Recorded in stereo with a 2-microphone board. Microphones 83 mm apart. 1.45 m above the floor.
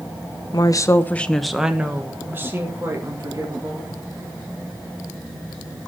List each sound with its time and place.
0.5 s a woman speaking: 55° left (ahead or behind), 1.0 m; by 4.0 s 40° right (ahead or behind), 3.5 m